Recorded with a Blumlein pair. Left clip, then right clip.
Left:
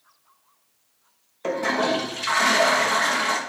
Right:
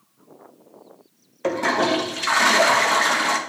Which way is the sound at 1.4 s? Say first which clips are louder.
Right 2 dB; 15° right.